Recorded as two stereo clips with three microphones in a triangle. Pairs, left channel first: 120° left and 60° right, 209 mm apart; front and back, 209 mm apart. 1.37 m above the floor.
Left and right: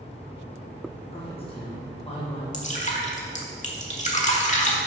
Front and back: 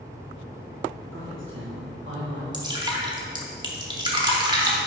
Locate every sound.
1.1 s a man speaking: straight behind, 1.5 m
2.5 s dripping: 130° left, 1.1 m